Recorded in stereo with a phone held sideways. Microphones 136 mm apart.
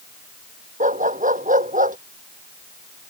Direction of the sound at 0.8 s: 70° right (ahead or behind).